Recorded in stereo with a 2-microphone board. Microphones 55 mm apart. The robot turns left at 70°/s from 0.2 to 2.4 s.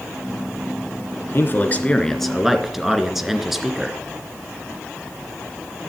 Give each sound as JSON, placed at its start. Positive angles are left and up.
{"t": 1.3, "sound": "a man speaking", "azimuth_deg": 70, "distance_m": 2.0}